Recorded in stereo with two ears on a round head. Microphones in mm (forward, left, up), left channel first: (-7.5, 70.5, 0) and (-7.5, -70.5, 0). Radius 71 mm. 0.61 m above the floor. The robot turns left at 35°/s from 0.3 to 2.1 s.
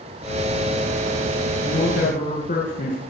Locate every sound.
1.6 s a man speaking: 70° left (ahead or behind), 7.5 m; by 3.0 s 55° left (ahead or behind), 7.5 m